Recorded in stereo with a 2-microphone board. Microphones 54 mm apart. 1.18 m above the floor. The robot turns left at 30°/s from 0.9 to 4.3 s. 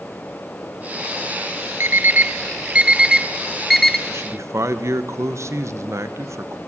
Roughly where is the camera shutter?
No camera shutter in this recording.